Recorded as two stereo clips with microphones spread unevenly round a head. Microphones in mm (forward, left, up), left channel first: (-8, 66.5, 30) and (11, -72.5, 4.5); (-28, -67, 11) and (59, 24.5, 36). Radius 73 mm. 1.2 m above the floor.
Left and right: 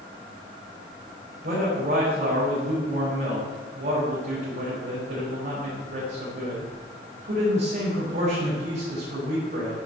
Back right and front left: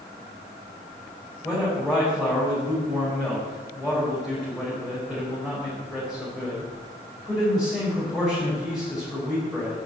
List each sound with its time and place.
1.4 s a man speaking: 45° right, 5.5 m